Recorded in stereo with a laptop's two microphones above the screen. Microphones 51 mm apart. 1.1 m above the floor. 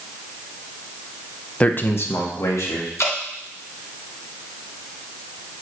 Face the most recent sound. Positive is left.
turn(degrees=70)  # may be behind; listen again after turning